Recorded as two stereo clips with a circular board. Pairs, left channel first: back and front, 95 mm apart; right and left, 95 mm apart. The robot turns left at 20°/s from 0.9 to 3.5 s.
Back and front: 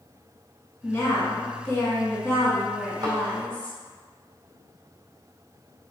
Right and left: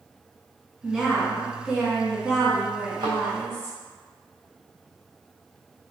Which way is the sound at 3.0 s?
50° left.